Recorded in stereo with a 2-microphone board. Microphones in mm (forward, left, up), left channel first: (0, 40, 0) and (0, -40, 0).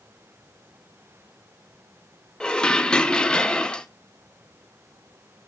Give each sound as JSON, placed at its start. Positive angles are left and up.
{"t": 2.4, "sound": "dishes clattering", "side_deg": 10, "distance_m": 0.7}